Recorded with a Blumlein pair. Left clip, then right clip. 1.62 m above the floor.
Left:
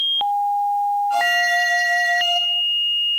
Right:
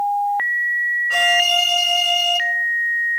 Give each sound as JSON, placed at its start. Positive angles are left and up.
{"t": 1.1, "sound": "a violin", "azimuth_deg": -60, "distance_m": 3.0}